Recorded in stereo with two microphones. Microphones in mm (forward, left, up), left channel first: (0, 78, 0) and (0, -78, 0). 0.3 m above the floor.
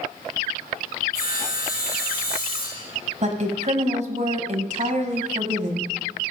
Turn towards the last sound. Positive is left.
turn(degrees=-50)  # may be behind; listen again after turning